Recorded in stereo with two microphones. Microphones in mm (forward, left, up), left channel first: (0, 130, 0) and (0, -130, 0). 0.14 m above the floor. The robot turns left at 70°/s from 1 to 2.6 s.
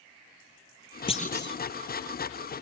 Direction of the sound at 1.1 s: 160° left.